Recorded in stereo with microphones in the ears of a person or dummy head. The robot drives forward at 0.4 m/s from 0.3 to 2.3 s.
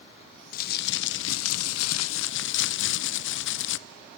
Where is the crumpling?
40° left (ahead or behind), 0.7 m; by 3.8 s 70° left (ahead or behind), 0.5 m.